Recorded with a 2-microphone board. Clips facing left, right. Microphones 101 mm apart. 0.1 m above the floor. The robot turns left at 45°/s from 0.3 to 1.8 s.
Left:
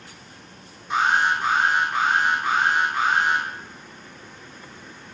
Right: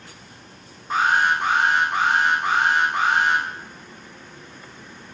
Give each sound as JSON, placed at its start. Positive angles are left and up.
{"t": 0.9, "sound": "an alarm", "azimuth_deg": -40, "distance_m": 3.0}